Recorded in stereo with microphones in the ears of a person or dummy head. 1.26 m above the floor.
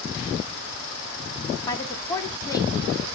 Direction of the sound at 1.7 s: 20° left (ahead or behind).